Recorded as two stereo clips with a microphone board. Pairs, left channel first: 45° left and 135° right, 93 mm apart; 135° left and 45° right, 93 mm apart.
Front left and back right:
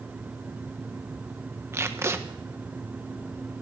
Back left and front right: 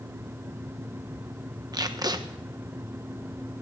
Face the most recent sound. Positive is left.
turn(degrees=-80)